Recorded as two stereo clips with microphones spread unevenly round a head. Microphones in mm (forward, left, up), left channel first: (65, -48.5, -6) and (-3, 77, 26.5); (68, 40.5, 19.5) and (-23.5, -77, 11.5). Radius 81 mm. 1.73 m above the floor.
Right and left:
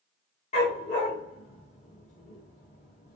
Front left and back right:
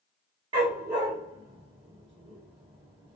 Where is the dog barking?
100° right, 1.5 m.